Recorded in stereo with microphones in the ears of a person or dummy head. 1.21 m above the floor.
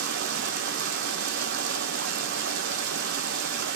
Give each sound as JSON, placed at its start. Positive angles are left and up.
{"t": 0.0, "sound": "running water", "side_deg": -70, "distance_m": 0.9}